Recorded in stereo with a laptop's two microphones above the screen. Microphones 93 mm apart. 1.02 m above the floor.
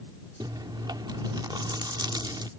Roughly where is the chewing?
Right.